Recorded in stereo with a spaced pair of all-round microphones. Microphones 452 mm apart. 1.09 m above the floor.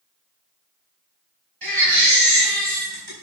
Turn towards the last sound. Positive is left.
turn(degrees=-55)  # may be behind; listen again after turning